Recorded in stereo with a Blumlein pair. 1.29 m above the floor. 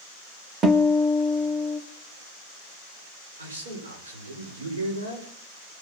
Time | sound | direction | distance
0.6 | a guitar | 25° right | 1.6 m
3.4 | a man speaking | 70° right | 6 m